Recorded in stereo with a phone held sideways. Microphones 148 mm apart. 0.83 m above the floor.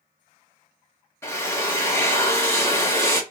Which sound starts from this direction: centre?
A drill, at 1.2 s.